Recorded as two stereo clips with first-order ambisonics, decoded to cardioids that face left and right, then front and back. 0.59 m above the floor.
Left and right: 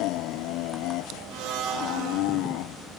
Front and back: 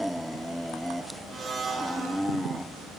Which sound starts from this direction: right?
A blender, at 1.3 s.